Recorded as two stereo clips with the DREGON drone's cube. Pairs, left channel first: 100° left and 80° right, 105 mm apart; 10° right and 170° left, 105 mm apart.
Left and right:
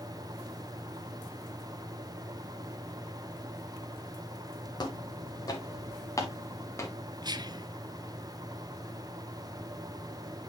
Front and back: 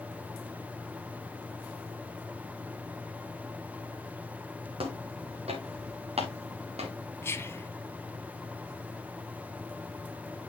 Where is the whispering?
65° right, 1.3 m.